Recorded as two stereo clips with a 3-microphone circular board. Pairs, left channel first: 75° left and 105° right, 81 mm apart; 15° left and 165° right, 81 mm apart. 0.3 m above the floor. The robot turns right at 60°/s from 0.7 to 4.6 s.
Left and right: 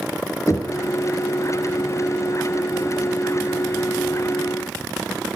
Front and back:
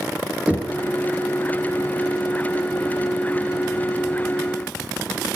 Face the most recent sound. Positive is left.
turn(degrees=-5)